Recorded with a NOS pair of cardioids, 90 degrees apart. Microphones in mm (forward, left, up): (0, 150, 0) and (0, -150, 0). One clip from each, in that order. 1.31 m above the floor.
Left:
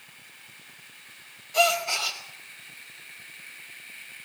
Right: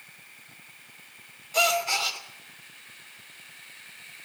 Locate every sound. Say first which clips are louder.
1.5 s a gasp: left 1 dB; 20° right, 3 m